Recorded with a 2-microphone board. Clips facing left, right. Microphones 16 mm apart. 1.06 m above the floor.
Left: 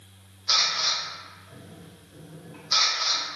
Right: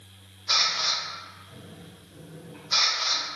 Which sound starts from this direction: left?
A camera shutter, at 0.5 s.